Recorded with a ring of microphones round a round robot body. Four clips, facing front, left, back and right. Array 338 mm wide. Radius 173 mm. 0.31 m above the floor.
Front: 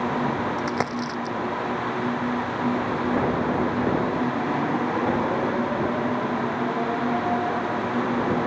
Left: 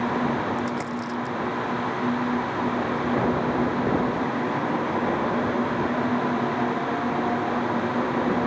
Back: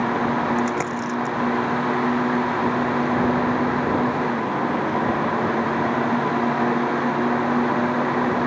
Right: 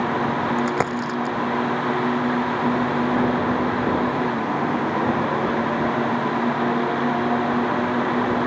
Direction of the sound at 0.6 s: 75° right.